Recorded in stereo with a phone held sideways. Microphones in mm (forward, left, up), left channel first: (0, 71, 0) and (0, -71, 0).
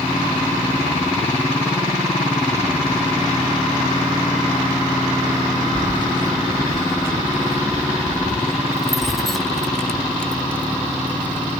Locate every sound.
5.8 s keys jangling: 40° right (ahead or behind); by 11.6 s 10° left (ahead or behind)